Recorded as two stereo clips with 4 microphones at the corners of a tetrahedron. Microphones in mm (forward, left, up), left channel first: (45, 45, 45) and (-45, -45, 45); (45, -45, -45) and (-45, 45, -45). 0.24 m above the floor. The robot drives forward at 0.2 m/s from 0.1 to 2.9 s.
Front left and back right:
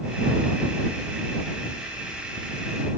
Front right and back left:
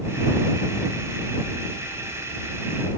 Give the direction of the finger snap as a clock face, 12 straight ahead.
I don't hear a finger snap.